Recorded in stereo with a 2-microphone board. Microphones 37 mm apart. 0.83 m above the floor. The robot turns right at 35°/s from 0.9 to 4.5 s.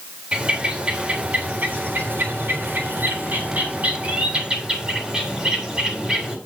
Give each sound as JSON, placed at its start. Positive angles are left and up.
{"t": 0.3, "sound": "a bird", "azimuth_deg": -150, "distance_m": 3.5}